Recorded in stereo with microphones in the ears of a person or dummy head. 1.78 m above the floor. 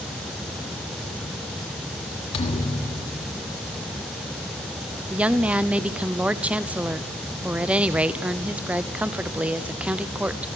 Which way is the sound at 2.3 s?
30° left (ahead or behind).